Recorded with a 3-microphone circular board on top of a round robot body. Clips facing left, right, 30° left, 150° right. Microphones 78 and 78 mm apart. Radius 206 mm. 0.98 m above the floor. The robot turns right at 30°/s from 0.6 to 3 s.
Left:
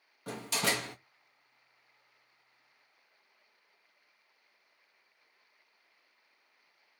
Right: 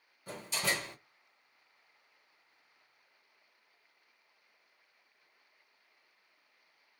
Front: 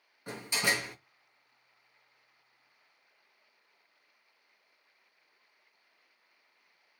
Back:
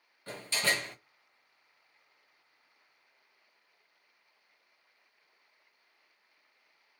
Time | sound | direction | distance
0.3 | a door slam | 105° left | 0.8 m